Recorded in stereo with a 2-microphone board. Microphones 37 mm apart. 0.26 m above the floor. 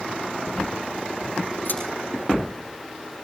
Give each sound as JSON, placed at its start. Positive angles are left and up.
{"t": 1.6, "sound": "scissors", "side_deg": 55, "distance_m": 8.0}